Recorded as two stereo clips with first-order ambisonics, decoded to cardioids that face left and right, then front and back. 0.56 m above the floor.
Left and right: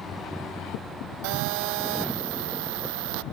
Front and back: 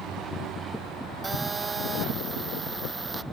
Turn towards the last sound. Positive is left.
turn(degrees=-100)